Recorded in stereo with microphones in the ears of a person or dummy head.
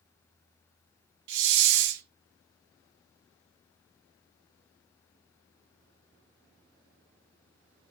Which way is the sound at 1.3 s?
60° right (ahead or behind).